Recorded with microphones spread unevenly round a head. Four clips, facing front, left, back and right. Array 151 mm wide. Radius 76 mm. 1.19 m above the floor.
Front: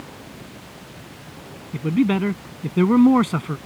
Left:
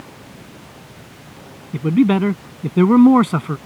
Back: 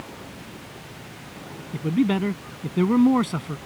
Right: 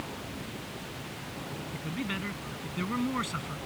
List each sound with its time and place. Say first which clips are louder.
1.7 s a man speaking: left 23 dB, front 2 dB; 85° left; by 3.6 s 80° left